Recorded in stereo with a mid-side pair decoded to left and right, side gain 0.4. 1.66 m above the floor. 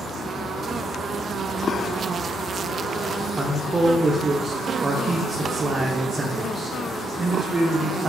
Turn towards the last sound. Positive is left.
turn(degrees=-35)